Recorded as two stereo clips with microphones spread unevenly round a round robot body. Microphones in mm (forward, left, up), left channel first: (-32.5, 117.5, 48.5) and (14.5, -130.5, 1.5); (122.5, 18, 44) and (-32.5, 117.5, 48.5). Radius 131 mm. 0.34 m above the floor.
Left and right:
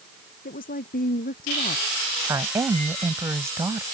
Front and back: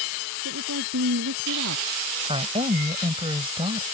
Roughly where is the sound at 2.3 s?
Behind right.